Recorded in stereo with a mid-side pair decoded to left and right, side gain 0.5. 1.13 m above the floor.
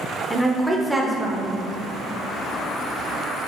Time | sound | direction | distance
0.3 | a woman speaking | 5° right | 0.5 m